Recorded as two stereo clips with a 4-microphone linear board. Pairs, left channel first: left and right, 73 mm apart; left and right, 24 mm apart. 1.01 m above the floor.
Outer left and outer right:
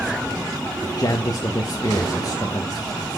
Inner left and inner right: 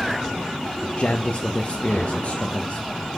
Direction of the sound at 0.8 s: 60° left (ahead or behind).